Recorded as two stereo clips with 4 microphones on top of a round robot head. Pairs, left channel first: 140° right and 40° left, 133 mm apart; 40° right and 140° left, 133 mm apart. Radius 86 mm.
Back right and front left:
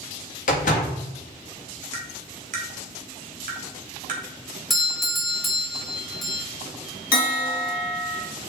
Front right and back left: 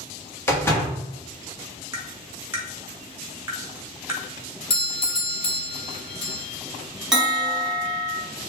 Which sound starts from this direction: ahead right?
A doorbell, at 4.7 s.